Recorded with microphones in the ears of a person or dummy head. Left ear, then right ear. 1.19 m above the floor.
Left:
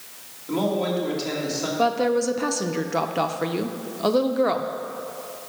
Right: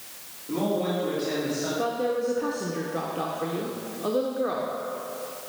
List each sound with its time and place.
0.5 s a man speaking: 45° left (ahead or behind), 2.5 m
1.8 s a woman speaking: 50° left (ahead or behind), 0.5 m